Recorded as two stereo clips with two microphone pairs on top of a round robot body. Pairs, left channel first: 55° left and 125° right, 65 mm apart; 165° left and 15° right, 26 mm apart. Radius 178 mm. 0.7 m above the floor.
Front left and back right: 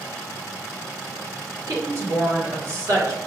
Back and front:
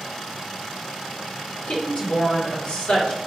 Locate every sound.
1.7 s a woman speaking: 165° right, 1.8 m